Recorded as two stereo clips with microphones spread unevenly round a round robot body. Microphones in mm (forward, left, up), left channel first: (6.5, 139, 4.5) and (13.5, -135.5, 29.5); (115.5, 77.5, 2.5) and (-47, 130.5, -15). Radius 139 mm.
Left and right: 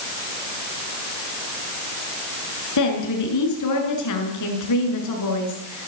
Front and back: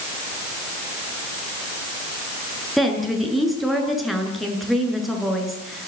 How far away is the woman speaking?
About 8 m.